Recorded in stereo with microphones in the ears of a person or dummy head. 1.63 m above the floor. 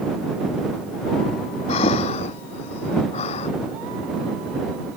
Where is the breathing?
35° left (ahead or behind).